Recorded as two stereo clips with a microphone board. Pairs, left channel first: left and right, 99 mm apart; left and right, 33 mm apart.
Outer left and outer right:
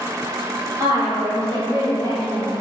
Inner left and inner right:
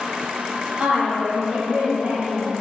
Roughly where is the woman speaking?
Right.